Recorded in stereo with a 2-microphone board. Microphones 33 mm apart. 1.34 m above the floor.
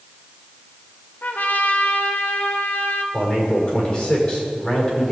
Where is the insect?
No insect in this recording.